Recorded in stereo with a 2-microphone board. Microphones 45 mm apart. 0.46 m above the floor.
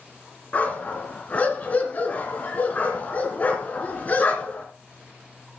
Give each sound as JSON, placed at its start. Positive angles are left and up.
{"t": 0.5, "sound": "a dog barking", "side_deg": 35, "distance_m": 2.5}